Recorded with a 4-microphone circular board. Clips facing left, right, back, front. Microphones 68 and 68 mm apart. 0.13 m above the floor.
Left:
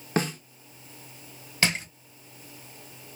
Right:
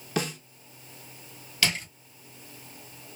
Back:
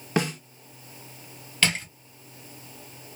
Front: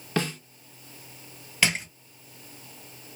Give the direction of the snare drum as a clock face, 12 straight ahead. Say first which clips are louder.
Left 3 dB, back 2 dB; 8 o'clock.